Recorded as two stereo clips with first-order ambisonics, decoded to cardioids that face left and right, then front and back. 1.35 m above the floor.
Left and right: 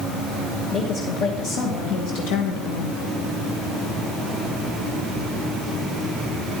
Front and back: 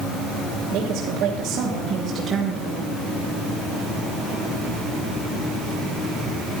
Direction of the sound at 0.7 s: 140° left.